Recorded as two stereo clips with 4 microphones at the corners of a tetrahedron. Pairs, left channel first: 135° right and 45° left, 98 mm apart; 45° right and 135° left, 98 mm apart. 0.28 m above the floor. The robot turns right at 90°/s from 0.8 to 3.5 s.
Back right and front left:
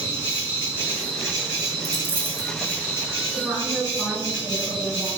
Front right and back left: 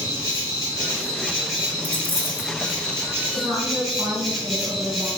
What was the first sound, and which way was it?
An insect, 20° right.